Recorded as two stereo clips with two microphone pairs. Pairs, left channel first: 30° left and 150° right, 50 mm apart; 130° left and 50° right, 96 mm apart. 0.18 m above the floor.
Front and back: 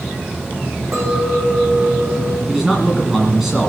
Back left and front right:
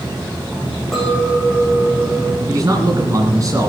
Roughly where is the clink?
Behind right.